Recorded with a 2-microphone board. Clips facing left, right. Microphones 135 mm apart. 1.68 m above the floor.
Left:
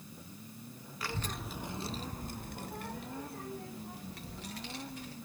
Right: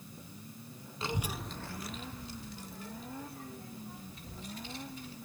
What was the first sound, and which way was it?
A child speaking, 25° right (ahead or behind).